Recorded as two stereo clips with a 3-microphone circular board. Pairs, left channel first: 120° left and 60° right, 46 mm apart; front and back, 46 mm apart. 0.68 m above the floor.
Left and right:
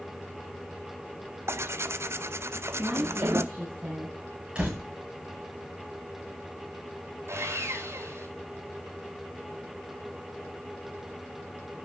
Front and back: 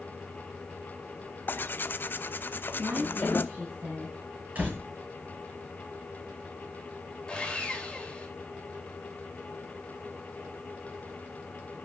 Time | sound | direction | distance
1.5 | tearing paper | 40° right | 0.7 m
2.8 | a woman speaking | 130° right | 5.5 m
4.5 | a door slam | 125° right | 9.5 m
7.3 | sawing | 70° right | 3.5 m